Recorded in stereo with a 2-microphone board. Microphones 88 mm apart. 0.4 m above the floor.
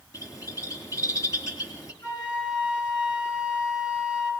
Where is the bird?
40° left (ahead or behind), 3 m.